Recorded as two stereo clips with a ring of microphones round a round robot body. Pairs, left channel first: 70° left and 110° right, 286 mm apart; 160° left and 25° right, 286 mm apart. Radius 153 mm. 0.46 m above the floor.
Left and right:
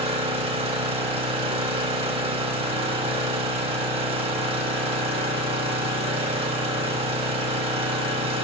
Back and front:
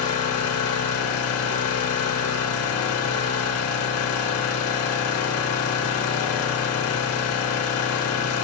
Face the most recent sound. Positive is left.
turn(degrees=180)